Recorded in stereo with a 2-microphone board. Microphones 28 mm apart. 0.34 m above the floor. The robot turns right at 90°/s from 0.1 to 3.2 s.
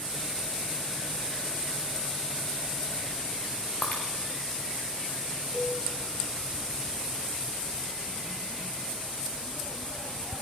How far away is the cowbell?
About 6 m.